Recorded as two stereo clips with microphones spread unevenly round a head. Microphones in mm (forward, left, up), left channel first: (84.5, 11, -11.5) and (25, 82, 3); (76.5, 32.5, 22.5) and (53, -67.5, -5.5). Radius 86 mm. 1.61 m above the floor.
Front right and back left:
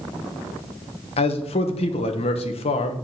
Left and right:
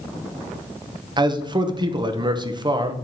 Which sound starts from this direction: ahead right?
A man speaking, at 1.2 s.